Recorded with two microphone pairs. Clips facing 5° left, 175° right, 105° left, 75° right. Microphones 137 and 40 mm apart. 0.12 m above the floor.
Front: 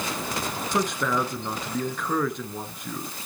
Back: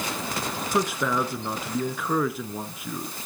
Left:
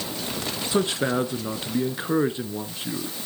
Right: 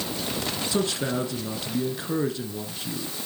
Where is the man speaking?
105° left, 1.2 m.